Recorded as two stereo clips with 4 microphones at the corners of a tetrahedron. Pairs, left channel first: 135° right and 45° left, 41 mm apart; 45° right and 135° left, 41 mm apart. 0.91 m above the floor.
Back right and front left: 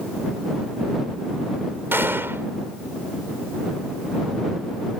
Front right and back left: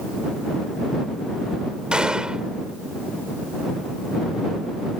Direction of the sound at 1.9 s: 65° left.